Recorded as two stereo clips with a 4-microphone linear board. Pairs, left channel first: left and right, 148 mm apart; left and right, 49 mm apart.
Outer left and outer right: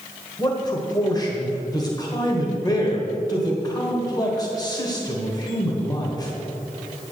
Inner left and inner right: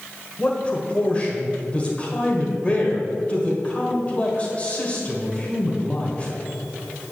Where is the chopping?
No chopping in this recording.